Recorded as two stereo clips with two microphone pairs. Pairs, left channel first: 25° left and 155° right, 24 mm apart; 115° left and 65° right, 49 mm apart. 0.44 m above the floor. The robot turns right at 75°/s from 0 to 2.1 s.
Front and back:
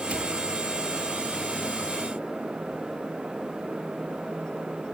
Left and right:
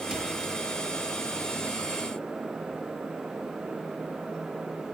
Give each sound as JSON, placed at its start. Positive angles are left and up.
{"t": 0.1, "sound": "a cupboard door", "azimuth_deg": -140, "distance_m": 5.5}